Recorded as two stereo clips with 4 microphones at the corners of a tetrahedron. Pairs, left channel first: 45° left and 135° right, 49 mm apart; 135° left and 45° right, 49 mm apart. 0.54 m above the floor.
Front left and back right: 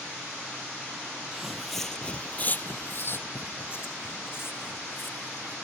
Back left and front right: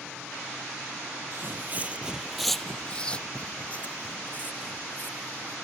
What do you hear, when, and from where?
1.3 s footsteps: 60° right; by 5.5 s 85° left